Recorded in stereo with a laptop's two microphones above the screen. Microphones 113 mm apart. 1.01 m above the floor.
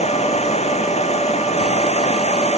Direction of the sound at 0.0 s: 75° left (ahead or behind).